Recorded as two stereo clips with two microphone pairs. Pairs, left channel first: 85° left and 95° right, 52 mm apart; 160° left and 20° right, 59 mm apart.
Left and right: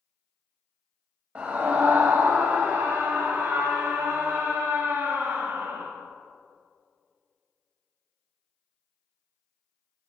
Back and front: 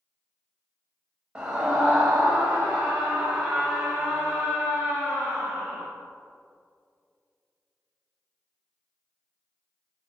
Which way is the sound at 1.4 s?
75° right.